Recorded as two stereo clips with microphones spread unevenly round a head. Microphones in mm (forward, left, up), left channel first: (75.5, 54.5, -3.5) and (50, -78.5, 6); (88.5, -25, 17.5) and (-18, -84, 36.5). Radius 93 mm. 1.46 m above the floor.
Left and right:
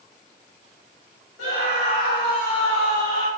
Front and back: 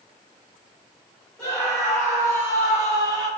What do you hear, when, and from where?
1.4 s a scream: 110° left, 1.6 m; by 3.3 s 140° left, 2 m